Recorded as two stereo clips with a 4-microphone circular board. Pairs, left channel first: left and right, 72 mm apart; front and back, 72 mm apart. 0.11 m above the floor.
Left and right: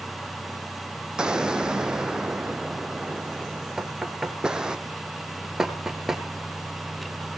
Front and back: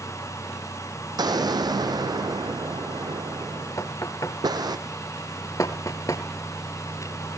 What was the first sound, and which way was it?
An explosion, 165° right.